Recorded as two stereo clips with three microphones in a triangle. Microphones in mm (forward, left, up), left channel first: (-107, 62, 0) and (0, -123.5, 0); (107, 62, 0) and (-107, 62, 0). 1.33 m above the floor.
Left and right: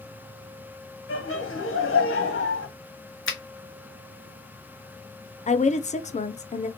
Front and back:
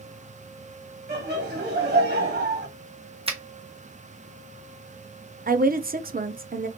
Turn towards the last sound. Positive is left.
turn(degrees=160)